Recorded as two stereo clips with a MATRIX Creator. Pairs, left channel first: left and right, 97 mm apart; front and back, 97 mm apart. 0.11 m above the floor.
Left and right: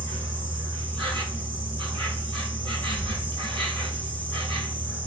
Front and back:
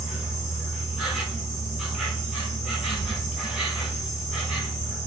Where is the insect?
95° right, 1.2 m.